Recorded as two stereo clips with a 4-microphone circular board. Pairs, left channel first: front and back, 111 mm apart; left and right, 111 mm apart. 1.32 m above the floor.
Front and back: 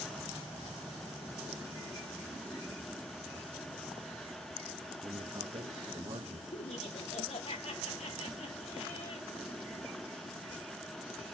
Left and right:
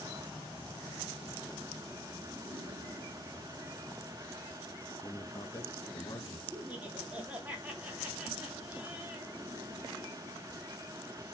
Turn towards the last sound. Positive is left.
turn(degrees=-15)